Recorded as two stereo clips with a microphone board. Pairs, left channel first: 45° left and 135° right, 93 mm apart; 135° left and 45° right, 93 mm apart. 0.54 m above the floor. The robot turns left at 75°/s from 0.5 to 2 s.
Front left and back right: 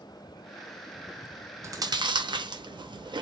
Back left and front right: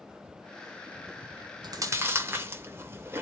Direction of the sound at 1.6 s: 80° right.